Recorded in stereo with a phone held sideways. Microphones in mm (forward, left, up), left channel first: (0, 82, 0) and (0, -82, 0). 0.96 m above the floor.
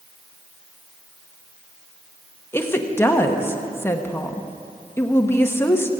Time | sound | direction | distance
2.5 | a woman speaking | 15° left (ahead or behind) | 1.1 m